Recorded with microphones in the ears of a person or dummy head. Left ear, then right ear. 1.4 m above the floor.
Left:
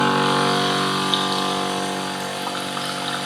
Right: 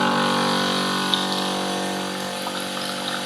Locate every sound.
0.0 s a machine running: 5° right (ahead or behind), 1.2 m